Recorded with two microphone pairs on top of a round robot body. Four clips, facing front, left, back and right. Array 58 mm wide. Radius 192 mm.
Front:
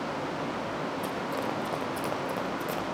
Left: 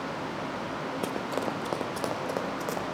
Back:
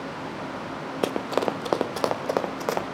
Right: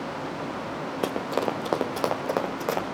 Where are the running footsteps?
155° right, 0.7 m; by 2.9 s 150° right, 1.8 m.